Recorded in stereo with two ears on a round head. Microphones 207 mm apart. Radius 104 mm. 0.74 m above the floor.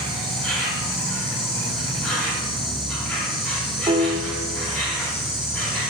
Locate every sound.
0.0 s an insect: 10° left (ahead or behind), 1.8 m
3.9 s a piano: 20° right (ahead or behind), 1.0 m